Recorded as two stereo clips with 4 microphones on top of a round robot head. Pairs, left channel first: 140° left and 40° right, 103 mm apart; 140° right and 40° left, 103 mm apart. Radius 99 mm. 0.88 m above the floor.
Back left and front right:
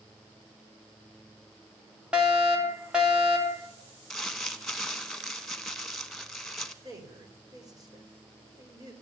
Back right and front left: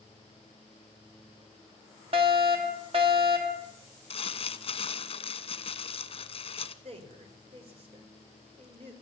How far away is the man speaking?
About 4 m.